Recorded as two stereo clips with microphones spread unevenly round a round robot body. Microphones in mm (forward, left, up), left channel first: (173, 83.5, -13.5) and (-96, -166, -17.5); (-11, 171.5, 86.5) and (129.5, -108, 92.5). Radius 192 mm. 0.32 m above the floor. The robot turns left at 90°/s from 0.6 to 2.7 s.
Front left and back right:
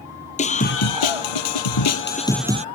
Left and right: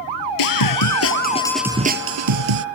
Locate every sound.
0.4 s a scream: 115° left; by 2.6 s 70° right